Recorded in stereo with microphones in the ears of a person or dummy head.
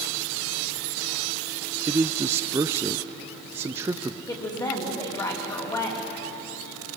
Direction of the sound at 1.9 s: 15° right (ahead or behind).